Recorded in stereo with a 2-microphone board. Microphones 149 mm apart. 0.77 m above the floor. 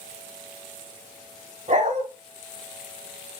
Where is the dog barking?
55° right (ahead or behind), 1.2 m.